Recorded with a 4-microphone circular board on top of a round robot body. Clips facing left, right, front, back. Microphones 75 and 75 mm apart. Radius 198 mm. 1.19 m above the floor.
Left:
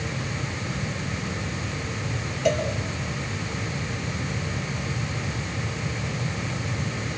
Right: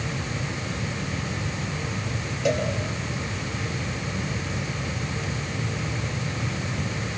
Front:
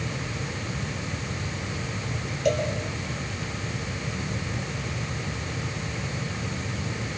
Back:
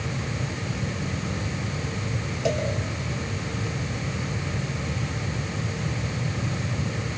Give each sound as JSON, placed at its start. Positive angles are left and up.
{"t": 2.5, "sound": "a cowbell", "azimuth_deg": -175, "distance_m": 5.5}